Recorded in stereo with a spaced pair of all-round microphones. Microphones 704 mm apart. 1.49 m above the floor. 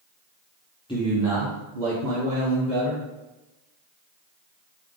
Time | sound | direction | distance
0.9 | a man speaking | 10° left (ahead or behind) | 0.8 m